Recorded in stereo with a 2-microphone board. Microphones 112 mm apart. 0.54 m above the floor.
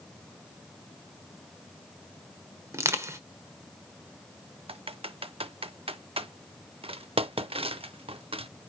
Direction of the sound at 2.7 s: 25° right (ahead or behind).